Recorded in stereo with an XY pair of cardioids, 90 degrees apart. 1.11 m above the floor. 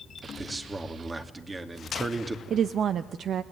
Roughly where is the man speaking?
Ahead right.